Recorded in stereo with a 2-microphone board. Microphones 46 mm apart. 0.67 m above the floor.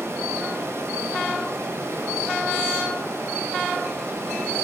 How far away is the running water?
About 1.4 m.